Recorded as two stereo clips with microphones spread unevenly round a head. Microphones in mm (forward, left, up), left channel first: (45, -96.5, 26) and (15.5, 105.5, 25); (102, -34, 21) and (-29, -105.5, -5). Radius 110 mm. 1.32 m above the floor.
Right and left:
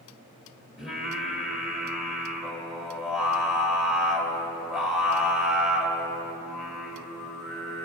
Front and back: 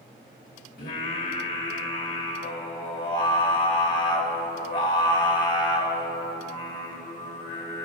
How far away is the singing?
About 1.6 m.